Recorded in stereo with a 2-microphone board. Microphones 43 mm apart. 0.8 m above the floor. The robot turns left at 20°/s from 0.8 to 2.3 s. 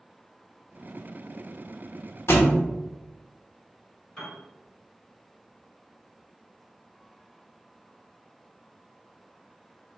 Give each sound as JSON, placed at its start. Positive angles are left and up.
{"t": 2.3, "sound": "a thud", "side_deg": 70, "distance_m": 0.7}
{"t": 4.2, "sound": "a piano", "side_deg": 25, "distance_m": 1.7}